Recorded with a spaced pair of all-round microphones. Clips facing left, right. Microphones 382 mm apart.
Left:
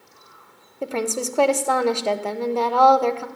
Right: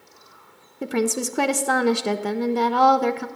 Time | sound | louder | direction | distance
0.8 | a woman speaking | right 2 dB | 30° right (ahead or behind) | 0.7 m